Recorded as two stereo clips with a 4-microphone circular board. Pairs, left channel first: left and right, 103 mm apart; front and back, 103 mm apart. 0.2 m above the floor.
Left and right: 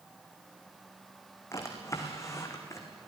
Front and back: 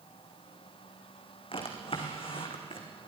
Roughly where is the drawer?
Ahead left.